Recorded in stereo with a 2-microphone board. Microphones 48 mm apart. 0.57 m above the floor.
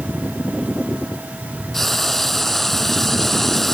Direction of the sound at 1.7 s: 5° left (ahead or behind).